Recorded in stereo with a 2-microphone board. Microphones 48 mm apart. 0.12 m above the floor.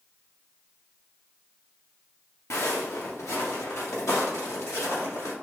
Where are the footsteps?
65° left (ahead or behind), 0.9 m; by 5.3 s 90° left, 2.5 m.